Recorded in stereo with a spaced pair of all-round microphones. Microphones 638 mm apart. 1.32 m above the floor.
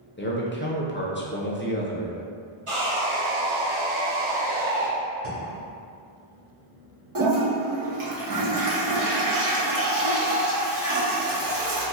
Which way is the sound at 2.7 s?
50° right (ahead or behind).